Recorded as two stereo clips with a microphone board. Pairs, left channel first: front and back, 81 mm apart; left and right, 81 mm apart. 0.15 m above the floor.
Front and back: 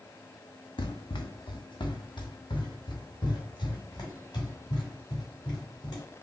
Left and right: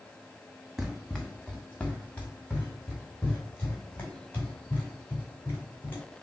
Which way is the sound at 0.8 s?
5° right.